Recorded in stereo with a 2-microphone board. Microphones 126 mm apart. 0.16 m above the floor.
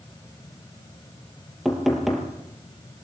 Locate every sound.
1.6 s knocking: centre (ahead or behind), 3 m